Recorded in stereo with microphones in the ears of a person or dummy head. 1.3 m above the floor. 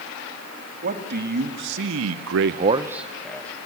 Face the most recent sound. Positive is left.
turn(degrees=10)  # may be behind; listen again after turning